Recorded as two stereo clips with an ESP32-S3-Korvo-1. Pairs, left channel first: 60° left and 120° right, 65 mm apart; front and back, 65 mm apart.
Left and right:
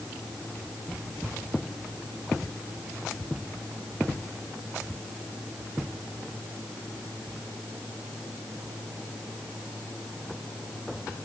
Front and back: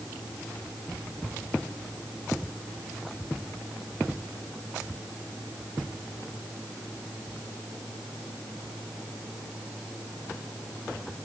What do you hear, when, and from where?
Only background noise.